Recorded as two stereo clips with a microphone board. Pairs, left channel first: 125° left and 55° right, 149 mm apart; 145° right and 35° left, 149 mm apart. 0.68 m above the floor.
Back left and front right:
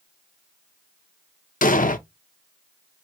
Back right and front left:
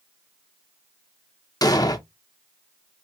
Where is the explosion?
150° left, 0.6 m.